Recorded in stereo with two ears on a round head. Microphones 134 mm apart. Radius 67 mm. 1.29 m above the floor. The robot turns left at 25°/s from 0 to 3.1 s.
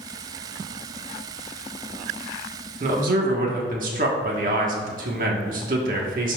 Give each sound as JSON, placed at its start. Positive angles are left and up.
{"t": 2.8, "sound": "a man speaking", "side_deg": -50, "distance_m": 1.4}